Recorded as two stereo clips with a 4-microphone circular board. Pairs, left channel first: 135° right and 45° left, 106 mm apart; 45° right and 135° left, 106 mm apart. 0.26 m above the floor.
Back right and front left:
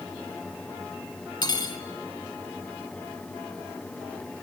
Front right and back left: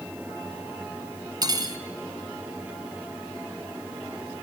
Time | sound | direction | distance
1.4 | cutlery clinking | straight behind | 1.5 m